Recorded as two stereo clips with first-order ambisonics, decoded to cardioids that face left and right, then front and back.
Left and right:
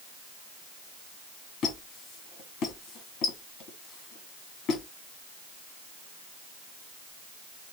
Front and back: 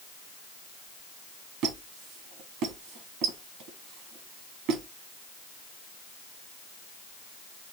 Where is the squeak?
140° left, 1.5 m.